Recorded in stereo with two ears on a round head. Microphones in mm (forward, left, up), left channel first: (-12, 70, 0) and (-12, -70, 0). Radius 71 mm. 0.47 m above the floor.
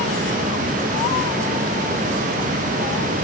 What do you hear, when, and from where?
Only background noise.